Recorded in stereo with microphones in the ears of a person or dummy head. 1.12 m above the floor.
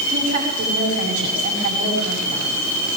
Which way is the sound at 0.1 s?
50° right (ahead or behind).